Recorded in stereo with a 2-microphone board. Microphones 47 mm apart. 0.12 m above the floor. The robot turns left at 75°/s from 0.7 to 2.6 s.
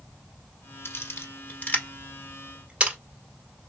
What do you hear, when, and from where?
0.8 s a camera shutter: 60° left (ahead or behind), 1.7 m; by 3.0 s 20° right (ahead or behind), 1.7 m